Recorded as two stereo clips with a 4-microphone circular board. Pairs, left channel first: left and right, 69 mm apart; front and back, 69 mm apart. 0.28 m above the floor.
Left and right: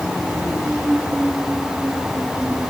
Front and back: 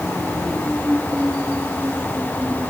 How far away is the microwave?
I don't hear a microwave.